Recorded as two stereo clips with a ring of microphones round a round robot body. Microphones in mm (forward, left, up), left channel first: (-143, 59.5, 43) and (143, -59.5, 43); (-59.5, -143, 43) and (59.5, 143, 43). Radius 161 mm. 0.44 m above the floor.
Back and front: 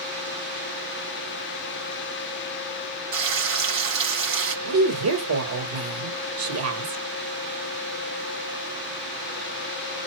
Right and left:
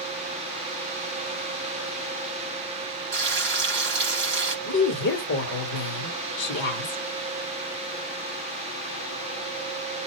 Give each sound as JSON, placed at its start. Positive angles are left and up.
{"t": 3.1, "sound": "frying", "azimuth_deg": 10, "distance_m": 4.0}
{"t": 4.7, "sound": "a woman speaking", "azimuth_deg": -60, "distance_m": 1.6}